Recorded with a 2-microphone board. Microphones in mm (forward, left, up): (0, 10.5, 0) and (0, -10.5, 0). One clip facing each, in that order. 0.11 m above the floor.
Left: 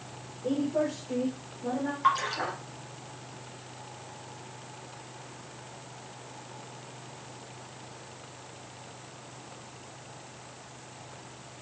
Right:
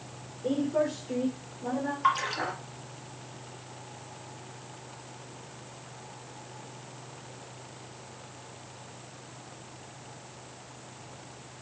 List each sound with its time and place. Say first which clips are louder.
0.4 s a woman speaking: right 1 dB; 25° right (ahead or behind), 5 m; by 1.9 s 15° right (ahead or behind), 4 m
2.0 s a splash: left 1 dB; centre (ahead or behind), 1.6 m